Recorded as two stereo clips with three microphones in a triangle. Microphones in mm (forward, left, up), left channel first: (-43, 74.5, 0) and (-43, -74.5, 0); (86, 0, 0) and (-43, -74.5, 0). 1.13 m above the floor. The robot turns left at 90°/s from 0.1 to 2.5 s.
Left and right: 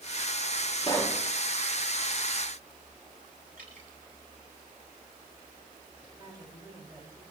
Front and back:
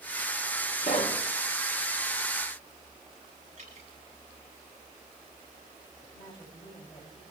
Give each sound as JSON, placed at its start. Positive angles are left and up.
{"t": 0.8, "sound": "a pop", "azimuth_deg": 40, "distance_m": 2.5}
{"t": 3.6, "sound": "dripping", "azimuth_deg": -110, "distance_m": 9.5}
{"t": 6.0, "sound": "a woman speaking", "azimuth_deg": -25, "distance_m": 7.0}